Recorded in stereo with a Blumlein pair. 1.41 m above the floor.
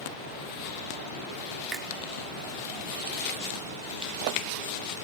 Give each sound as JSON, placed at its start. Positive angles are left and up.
{"t": 1.7, "sound": "a finger snap", "azimuth_deg": -15, "distance_m": 3.5}